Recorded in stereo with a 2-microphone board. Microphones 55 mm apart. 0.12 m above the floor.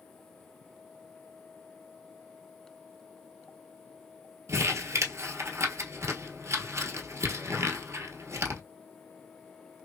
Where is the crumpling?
60° right (ahead or behind), 1.0 m.